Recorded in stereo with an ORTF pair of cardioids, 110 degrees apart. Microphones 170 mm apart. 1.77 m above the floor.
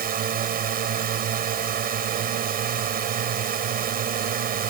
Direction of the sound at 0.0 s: 60° right.